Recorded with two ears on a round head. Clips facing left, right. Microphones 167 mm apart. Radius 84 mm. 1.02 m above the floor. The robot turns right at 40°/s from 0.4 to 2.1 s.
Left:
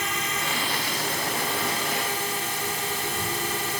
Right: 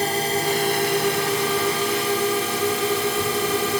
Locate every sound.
0.0 s a drone: 145° right; by 3.8 s 75° right